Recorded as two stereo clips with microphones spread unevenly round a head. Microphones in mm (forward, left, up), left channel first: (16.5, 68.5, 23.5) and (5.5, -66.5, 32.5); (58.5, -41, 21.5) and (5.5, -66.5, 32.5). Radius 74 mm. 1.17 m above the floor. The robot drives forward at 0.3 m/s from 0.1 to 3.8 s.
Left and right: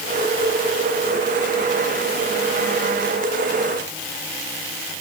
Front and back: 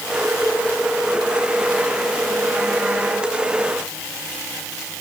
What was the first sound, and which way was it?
Only background noise.